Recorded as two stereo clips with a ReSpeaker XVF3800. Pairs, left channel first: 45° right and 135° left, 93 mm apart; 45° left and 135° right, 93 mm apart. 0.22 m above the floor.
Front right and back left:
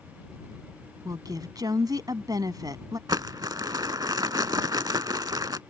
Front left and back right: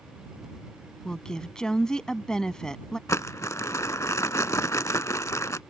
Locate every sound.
1.1 s a woman speaking: 125° left
3.1 s crumpling: 95° left